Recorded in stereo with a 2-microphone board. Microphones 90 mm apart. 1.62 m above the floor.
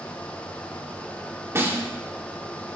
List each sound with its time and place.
1.6 s a snare drum: 30° right (ahead or behind), 2.5 m